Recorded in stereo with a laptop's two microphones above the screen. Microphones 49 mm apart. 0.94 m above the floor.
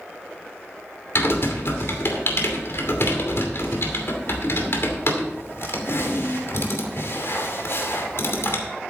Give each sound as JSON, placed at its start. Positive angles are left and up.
{"t": 1.1, "sound": "typing on a keyboard", "side_deg": 60, "distance_m": 2.5}